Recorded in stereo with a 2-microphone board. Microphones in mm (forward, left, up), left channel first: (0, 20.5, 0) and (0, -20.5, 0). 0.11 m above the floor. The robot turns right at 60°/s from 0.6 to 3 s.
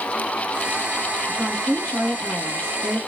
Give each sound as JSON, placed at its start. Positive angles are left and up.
{"t": 1.3, "sound": "a woman speaking", "azimuth_deg": 55, "distance_m": 2.0}